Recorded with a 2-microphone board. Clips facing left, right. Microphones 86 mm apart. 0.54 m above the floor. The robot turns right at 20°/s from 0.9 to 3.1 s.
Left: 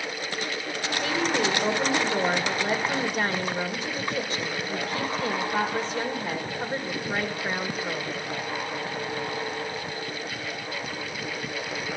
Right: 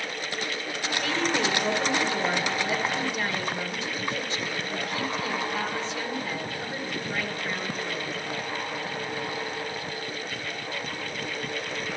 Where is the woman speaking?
15° left, 2.5 m; by 8.2 s 55° left, 2.5 m.